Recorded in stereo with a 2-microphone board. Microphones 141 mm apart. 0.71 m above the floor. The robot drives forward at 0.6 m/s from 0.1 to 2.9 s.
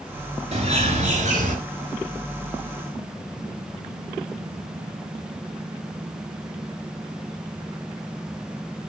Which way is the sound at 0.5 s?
45° right (ahead or behind).